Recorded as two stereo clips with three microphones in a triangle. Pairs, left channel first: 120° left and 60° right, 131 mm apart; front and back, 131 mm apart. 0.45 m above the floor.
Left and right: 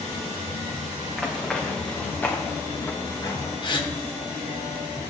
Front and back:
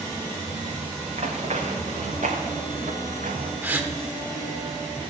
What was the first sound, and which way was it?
Running footsteps, 150° right.